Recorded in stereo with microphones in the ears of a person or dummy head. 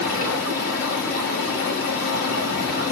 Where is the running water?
90° left, 6 m.